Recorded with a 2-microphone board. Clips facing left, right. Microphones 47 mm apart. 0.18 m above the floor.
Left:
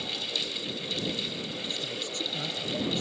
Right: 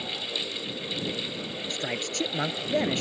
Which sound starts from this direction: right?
A man speaking, at 1.7 s.